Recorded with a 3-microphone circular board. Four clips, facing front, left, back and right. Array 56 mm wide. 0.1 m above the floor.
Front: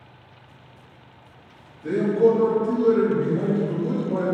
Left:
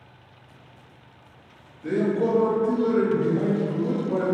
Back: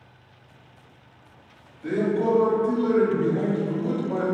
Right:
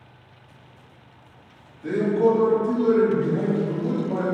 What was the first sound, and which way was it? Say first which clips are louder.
A man speaking: right 3 dB, front 4 dB; 165° right.